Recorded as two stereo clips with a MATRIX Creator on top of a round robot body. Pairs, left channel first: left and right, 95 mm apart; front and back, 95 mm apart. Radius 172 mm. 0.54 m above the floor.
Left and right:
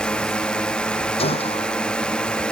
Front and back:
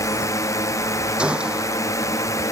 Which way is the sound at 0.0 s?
15° left.